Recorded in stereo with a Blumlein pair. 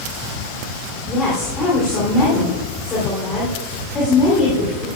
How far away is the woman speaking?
About 3.5 m.